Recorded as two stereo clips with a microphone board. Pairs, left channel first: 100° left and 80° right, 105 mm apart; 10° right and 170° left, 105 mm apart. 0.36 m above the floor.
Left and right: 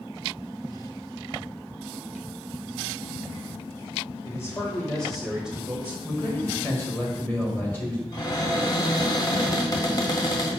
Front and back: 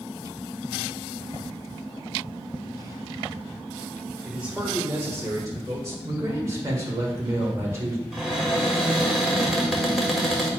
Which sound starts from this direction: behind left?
A man speaking, at 6.0 s.